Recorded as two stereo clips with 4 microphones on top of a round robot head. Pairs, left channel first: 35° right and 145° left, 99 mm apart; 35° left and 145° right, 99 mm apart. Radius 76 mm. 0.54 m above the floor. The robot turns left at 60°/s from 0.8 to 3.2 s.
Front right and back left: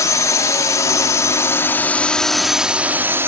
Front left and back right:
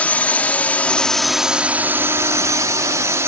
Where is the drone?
30° right; by 3.3 s 170° right.